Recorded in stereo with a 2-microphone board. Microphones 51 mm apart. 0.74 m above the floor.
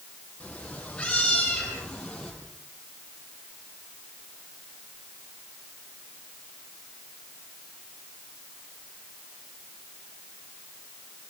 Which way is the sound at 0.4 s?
20° left (ahead or behind).